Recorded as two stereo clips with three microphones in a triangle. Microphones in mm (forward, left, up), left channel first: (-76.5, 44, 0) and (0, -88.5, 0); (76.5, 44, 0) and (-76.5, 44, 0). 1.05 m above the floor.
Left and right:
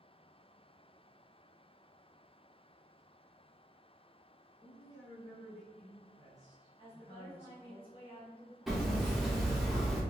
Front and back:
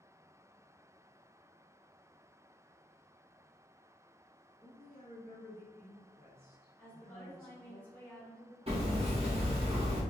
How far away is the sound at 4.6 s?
About 1.7 m.